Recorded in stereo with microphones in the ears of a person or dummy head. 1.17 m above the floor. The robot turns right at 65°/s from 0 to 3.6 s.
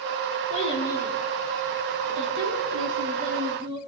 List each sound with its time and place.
0.5 s a child speaking: 135° left, 7 m; by 3.8 s 25° right, 7 m